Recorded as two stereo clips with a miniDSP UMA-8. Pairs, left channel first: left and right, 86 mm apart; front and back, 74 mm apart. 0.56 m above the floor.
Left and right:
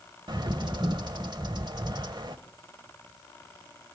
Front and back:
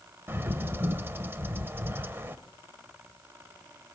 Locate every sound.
0.3 s a bird: 120° right, 1.0 m